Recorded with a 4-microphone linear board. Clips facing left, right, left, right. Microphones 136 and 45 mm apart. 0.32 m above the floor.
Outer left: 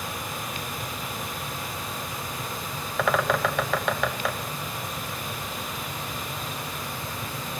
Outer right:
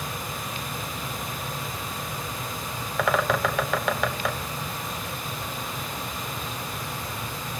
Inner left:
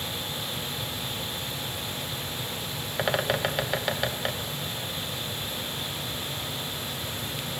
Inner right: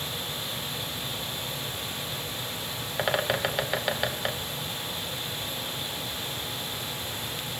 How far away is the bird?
About 0.9 m.